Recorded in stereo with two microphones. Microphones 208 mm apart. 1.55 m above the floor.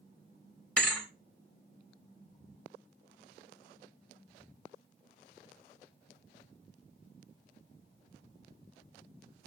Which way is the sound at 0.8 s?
5° left (ahead or behind).